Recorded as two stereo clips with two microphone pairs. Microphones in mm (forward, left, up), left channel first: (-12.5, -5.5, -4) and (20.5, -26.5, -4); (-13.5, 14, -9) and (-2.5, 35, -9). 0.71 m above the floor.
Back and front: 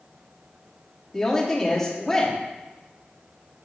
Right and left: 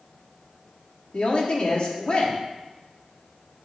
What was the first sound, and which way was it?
A woman speaking, 135° right.